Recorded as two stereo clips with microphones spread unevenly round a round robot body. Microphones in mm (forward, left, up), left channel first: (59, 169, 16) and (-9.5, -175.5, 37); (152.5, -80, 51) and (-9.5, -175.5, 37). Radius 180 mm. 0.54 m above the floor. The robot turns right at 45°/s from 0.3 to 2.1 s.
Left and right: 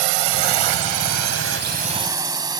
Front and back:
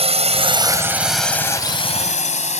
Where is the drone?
95° right; by 2.6 s 20° right.